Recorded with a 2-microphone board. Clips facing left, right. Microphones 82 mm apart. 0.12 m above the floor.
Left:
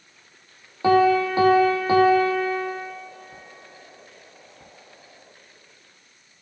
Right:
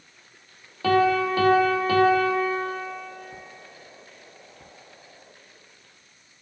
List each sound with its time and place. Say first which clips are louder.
0.8 s a piano: left 3 dB; 20° left (ahead or behind), 0.7 m